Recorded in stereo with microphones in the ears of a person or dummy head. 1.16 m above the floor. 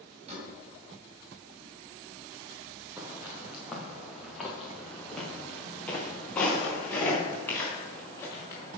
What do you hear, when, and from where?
0.3 s a door slam: 30° right (ahead or behind), 5.5 m
3.0 s footsteps: 10° right (ahead or behind), 5 m; by 8.8 s 20° left (ahead or behind), 7 m